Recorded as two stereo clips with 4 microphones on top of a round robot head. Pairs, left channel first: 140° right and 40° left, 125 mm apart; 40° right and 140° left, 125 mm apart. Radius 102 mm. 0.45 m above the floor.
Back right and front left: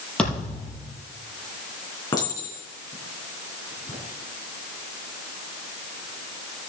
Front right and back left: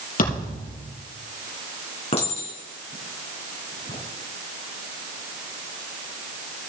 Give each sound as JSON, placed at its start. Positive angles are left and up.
{"t": 0.2, "sound": "a thud", "azimuth_deg": -60, "distance_m": 5.5}
{"t": 2.1, "sound": "a clink", "azimuth_deg": -80, "distance_m": 4.5}